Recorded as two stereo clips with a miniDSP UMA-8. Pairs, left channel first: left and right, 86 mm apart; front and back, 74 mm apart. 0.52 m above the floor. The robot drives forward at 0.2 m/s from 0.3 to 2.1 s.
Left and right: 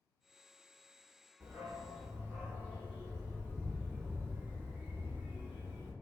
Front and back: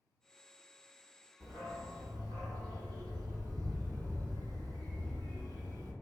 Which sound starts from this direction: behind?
A dog barking, at 1.4 s.